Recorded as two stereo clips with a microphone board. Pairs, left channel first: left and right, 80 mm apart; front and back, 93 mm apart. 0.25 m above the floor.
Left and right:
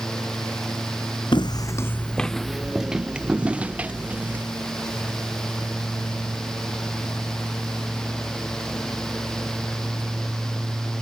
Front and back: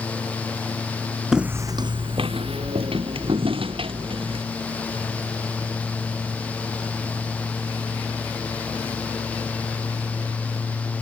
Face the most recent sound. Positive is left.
turn(degrees=-160)